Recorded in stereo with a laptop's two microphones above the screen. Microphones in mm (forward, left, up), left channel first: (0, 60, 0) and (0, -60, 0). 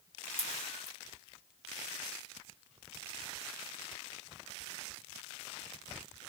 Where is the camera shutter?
85° left, 3.5 m.